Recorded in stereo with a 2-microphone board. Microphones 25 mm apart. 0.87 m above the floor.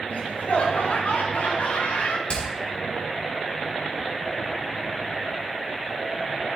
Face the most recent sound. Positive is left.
turn(degrees=40)  # may be behind; listen again after turning